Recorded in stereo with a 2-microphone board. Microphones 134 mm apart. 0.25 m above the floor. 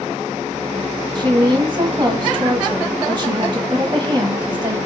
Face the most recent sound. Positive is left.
turn(degrees=-35)  # may be behind; listen again after turning